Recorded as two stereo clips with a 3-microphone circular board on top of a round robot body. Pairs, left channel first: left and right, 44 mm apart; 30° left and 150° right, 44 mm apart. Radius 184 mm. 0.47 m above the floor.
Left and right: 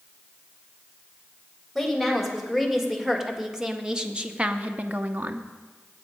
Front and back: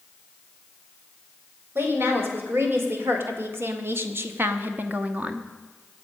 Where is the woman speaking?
Straight behind, 3 m; by 5.5 s 90° right, 1.2 m.